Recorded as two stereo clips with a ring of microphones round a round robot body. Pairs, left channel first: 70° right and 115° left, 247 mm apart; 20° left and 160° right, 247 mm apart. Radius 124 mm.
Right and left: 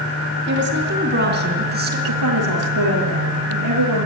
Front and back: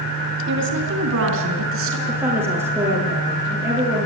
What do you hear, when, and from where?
0.5 s a woman speaking: 160° left, 3.5 m; by 2.0 s 165° left, 4.5 m
2.1 s a woman speaking: 120° left, 7 m